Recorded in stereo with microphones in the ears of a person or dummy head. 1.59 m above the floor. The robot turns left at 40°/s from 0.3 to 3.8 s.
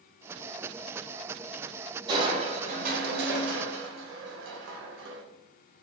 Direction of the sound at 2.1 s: 25° right.